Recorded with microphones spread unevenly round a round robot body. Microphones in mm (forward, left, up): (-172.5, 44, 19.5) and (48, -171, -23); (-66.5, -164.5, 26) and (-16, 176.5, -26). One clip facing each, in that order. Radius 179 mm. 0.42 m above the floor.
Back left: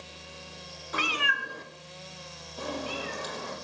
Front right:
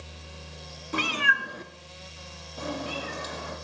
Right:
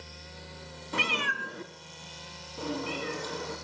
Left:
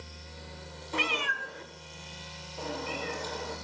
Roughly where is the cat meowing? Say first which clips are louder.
Front right 4 dB, even; right.